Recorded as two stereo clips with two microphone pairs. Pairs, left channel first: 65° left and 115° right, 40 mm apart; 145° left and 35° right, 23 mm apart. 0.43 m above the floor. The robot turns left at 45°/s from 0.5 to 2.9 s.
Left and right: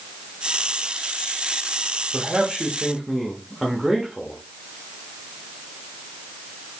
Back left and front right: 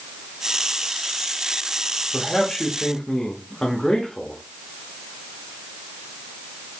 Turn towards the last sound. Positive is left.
turn(degrees=165)